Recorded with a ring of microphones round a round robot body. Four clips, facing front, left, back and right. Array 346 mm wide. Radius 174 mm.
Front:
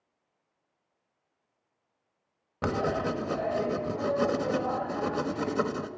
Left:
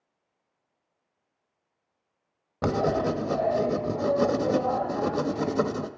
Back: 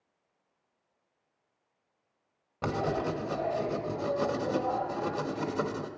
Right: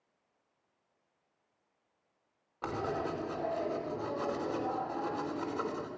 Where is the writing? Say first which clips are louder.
Left 10 dB, front 2 dB; 75° left, 1.2 m.